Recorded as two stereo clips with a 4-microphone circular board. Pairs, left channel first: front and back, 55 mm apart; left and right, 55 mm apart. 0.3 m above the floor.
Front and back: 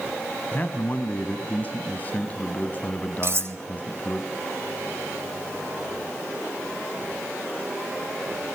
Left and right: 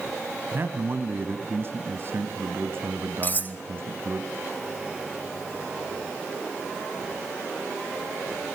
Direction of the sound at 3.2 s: 145° left.